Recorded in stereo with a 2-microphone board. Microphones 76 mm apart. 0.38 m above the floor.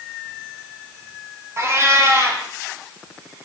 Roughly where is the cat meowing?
Right.